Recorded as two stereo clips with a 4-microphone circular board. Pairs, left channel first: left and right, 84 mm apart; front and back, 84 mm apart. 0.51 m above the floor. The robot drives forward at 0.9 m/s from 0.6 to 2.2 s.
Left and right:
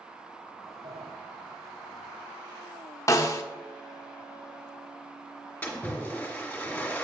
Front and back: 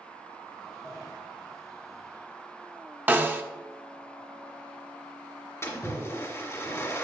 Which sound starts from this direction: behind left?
A snare drum, at 3.1 s.